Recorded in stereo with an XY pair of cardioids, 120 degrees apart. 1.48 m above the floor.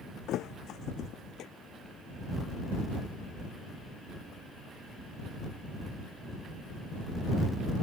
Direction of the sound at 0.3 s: 65° left.